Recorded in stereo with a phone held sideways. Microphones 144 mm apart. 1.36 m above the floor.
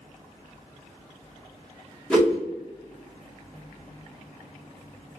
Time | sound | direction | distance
2.1 | a whoosh | 5° left (ahead or behind) | 1.2 m